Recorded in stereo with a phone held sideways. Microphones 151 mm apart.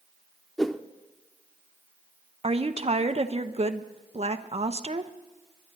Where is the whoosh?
Centre (ahead or behind), 0.6 m.